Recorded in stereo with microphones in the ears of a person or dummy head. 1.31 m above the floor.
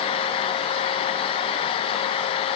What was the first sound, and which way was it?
Only background noise.